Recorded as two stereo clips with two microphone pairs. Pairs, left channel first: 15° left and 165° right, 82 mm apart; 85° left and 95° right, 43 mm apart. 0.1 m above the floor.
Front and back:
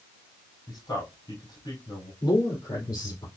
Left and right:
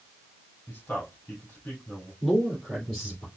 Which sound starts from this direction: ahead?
A man speaking, at 2.2 s.